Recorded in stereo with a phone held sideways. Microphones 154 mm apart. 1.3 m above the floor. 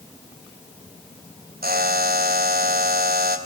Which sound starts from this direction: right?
A buzzer, at 1.6 s.